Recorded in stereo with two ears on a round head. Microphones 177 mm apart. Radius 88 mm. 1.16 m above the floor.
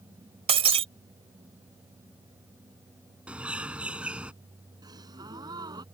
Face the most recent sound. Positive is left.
turn(degrees=-20)  # may be behind; listen again after turning